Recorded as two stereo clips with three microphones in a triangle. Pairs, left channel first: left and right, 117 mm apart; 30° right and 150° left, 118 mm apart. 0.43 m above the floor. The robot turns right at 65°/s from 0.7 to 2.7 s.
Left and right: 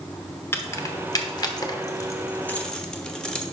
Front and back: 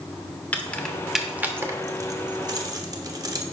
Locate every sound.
0.5 s keys jangling: 40° left, 0.8 m; by 3.4 s 170° left, 0.8 m